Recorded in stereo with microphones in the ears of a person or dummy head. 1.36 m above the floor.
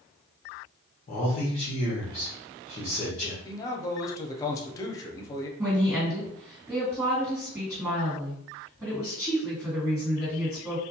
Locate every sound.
1.1 s a man speaking: 40° left (ahead or behind), 0.8 m
3.5 s a man speaking: 25° left (ahead or behind), 0.6 m
5.6 s a woman speaking: 5° right (ahead or behind), 1.7 m